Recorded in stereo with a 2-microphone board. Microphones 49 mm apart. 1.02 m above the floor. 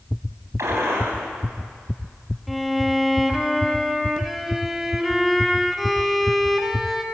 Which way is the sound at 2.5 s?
Centre (ahead or behind).